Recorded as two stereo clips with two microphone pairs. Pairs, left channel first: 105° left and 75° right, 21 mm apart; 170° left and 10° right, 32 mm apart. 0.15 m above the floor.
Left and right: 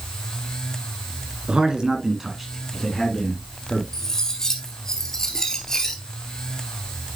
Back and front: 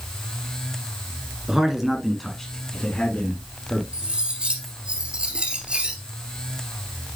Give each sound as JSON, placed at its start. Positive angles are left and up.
{"t": 1.5, "sound": "a man speaking", "azimuth_deg": -75, "distance_m": 2.0}
{"t": 3.9, "sound": "cutlery clinking", "azimuth_deg": 45, "distance_m": 1.8}